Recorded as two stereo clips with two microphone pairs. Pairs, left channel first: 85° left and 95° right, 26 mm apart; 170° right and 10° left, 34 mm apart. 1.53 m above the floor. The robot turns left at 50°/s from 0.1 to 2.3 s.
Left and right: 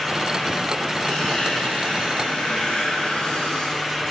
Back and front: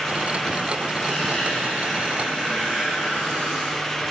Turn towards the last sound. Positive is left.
turn(degrees=60)